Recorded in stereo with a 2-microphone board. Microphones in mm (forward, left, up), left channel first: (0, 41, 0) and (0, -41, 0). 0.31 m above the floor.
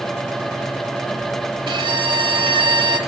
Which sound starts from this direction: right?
A violin, at 1.7 s.